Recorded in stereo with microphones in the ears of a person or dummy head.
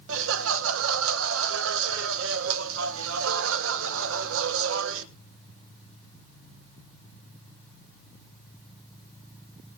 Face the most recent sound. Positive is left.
turn(degrees=-75)  # may be behind; listen again after turning